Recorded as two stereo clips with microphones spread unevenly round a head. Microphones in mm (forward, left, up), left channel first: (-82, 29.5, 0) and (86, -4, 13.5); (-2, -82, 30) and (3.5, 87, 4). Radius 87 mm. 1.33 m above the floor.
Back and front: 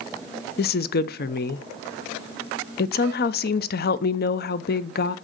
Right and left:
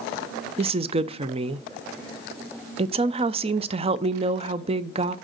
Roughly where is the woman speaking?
Behind left.